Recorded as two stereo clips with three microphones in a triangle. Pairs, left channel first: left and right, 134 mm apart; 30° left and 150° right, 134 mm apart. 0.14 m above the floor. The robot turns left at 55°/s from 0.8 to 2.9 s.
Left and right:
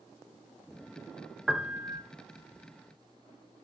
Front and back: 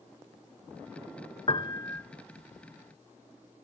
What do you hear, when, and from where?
1.5 s a piano: straight ahead, 0.8 m; by 2.0 s 35° right, 0.8 m